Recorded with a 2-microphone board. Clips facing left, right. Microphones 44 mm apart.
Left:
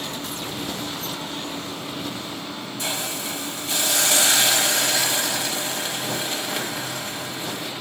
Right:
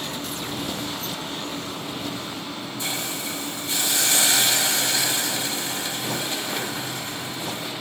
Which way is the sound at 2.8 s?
60° left (ahead or behind).